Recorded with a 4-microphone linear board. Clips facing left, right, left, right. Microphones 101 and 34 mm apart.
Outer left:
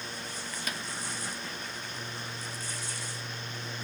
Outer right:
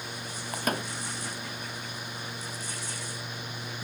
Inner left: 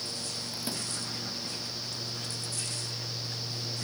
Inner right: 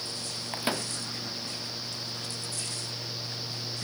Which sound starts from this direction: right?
A microwave, at 0.5 s.